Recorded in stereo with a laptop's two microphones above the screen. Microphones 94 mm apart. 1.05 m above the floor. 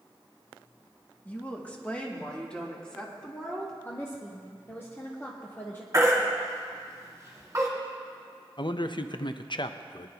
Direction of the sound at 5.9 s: 35° right (ahead or behind).